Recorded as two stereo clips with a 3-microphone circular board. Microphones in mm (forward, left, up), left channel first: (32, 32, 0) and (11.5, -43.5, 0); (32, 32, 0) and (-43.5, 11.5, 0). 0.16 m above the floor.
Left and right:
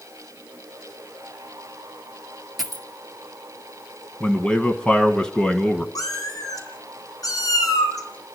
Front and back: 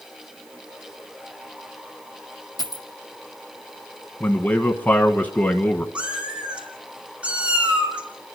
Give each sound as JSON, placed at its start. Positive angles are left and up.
{"t": 2.6, "sound": "a dropped coin", "azimuth_deg": -20, "distance_m": 1.6}
{"t": 4.2, "sound": "a man speaking", "azimuth_deg": 10, "distance_m": 1.1}
{"t": 6.0, "sound": "a cat meowing", "azimuth_deg": 120, "distance_m": 2.5}